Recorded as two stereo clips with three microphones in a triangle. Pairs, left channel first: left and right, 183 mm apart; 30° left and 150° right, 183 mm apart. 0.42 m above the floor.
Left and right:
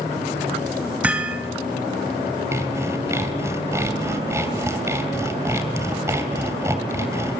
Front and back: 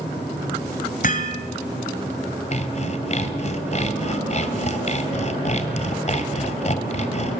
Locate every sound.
1.0 s hammering: 10° right, 2.5 m
2.5 s sawing: 15° right, 2 m